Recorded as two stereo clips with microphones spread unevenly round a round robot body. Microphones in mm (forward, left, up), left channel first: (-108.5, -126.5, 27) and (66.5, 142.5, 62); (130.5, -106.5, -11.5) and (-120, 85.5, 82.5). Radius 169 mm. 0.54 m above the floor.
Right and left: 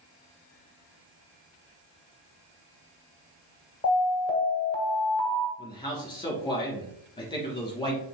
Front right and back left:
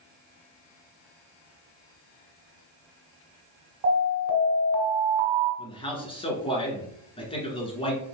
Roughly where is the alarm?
Behind.